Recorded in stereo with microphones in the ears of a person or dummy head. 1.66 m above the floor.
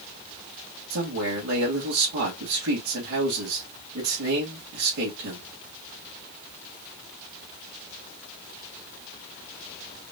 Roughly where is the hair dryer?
I don't hear a hair dryer.